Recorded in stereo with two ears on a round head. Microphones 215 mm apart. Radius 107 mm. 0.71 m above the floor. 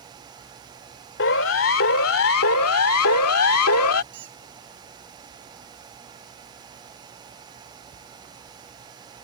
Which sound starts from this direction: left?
A siren, at 1.2 s.